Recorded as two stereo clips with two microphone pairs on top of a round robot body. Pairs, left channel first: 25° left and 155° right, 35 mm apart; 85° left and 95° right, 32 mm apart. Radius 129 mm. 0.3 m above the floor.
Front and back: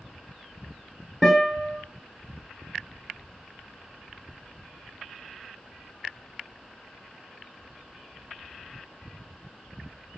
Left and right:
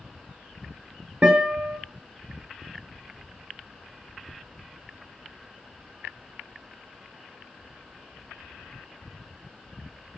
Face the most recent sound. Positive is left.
turn(degrees=-55)